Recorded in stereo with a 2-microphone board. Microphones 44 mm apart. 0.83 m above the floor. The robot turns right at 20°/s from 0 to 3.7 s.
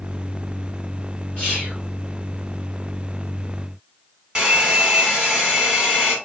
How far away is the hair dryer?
About 1.3 m.